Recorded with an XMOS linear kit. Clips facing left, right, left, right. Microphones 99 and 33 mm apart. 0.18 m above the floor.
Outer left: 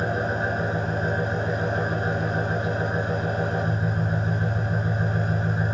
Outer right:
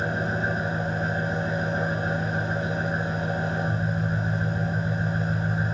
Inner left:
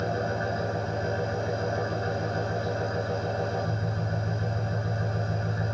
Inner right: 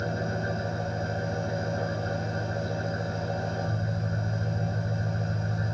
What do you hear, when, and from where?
0.0 s an engine running: 55° left (ahead or behind), 8.5 m